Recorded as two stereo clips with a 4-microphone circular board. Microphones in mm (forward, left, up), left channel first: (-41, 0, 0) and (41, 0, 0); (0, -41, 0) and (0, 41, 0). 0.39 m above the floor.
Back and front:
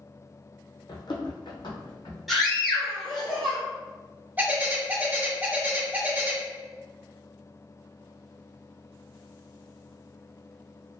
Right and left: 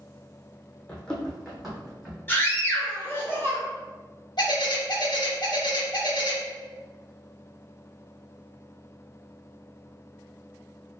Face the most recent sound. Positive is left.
turn(degrees=-65)